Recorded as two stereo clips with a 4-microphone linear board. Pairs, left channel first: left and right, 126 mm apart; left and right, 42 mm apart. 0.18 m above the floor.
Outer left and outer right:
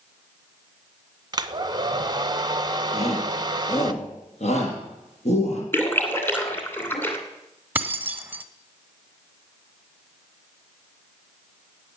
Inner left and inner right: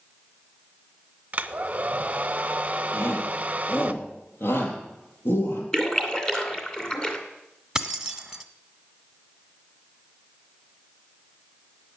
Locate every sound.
1.3 s a hair dryer: 35° right (ahead or behind), 0.7 m
2.9 s a shout: 60° left (ahead or behind), 6 m
5.7 s a splash: 15° left (ahead or behind), 2.5 m
7.8 s keys jangling: 15° right (ahead or behind), 1.1 m